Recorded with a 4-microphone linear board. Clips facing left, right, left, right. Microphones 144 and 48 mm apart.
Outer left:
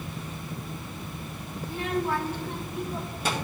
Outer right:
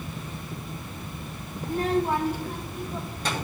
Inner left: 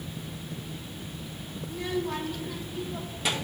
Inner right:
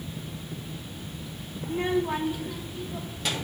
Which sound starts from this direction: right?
A child speaking, at 1.6 s.